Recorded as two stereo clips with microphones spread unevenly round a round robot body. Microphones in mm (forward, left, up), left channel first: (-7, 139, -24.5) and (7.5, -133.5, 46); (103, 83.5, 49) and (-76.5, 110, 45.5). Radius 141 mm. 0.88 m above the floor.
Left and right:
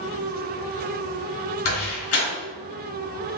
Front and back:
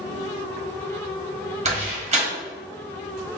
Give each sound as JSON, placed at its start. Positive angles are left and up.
{"t": 1.6, "sound": "a door slam", "azimuth_deg": 120, "distance_m": 1.7}